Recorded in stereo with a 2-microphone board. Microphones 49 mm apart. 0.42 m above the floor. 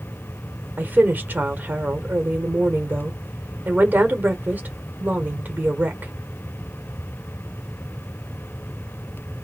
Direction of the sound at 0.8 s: 35° right (ahead or behind).